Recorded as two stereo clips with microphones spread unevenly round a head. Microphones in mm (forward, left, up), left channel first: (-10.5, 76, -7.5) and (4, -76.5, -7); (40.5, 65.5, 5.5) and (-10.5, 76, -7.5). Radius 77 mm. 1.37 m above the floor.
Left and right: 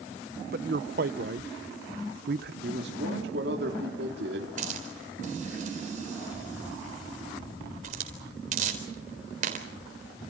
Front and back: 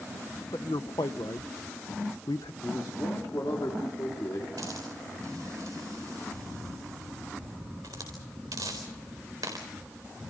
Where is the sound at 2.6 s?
60° right, 3 m.